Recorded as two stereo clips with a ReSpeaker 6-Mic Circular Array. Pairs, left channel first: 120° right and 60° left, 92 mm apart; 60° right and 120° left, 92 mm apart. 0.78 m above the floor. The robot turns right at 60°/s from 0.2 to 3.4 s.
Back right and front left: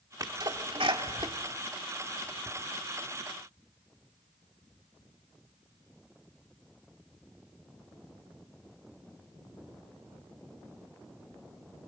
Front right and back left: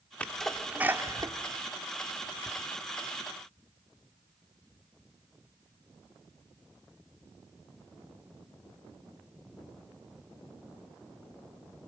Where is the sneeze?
15° left, 2 m; by 2.5 s 150° left, 2 m.